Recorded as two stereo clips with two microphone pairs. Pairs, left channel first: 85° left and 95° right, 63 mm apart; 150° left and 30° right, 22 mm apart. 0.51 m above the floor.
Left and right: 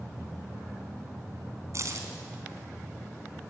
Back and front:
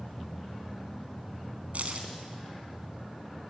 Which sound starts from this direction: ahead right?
Keys jangling, at 1.7 s.